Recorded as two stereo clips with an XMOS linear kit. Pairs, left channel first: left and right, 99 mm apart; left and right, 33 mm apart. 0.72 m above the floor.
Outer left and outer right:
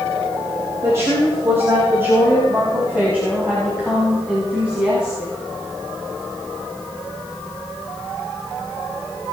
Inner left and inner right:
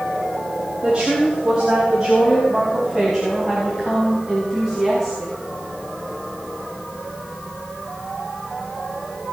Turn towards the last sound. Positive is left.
turn(degrees=-10)  # may be behind; listen again after turning